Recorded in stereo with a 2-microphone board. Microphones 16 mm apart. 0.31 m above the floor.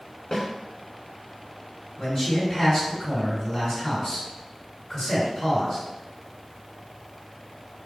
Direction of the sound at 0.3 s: 30° left (ahead or behind).